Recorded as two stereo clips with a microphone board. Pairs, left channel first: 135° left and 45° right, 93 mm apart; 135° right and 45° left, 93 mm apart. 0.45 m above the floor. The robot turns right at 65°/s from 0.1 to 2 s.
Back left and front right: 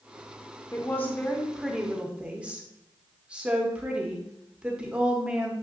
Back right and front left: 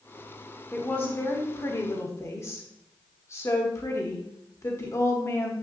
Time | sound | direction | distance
0.7 | a woman speaking | 165° left | 1.2 m